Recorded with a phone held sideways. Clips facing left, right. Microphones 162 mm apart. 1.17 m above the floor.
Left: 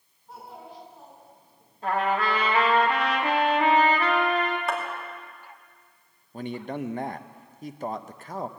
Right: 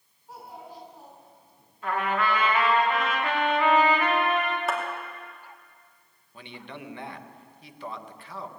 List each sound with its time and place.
0.3 s a child speaking: 10° right (ahead or behind), 7.5 m; by 1.6 s 15° right (ahead or behind), 7.5 m
1.8 s a trumpet: 35° left (ahead or behind), 1.9 m
4.7 s a clap: centre (ahead or behind), 2.5 m
6.3 s a man speaking: 45° left (ahead or behind), 0.6 m